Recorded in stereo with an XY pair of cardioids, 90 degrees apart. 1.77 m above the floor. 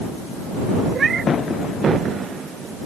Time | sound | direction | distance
0.9 | a cat meowing | 50° right | ?